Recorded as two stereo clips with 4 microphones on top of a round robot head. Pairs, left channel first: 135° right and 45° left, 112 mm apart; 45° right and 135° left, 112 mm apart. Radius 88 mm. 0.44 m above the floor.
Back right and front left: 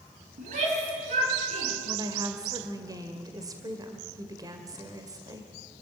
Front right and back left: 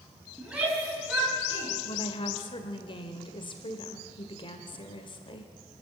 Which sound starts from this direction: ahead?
A woman speaking, at 1.9 s.